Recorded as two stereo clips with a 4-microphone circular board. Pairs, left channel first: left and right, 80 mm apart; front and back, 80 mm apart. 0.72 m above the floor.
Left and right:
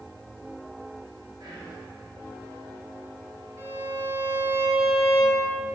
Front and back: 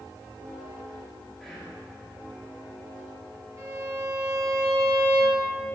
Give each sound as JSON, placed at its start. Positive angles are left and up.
{"t": 1.4, "sound": "whispering", "azimuth_deg": -85, "distance_m": 1.9}
{"t": 3.6, "sound": "a violin", "azimuth_deg": -135, "distance_m": 2.0}